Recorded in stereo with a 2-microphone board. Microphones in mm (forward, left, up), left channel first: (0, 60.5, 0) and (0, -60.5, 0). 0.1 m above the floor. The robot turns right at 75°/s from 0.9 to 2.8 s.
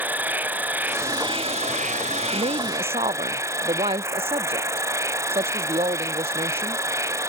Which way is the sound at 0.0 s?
165° right.